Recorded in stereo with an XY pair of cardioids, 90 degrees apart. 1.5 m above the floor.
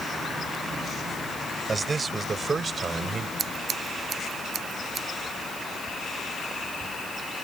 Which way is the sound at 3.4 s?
55° right.